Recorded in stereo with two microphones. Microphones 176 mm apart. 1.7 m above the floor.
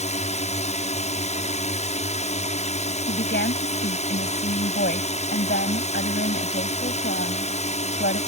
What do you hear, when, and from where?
0.0 s a drone: 40° left (ahead or behind)
3.1 s a woman speaking: 70° left (ahead or behind)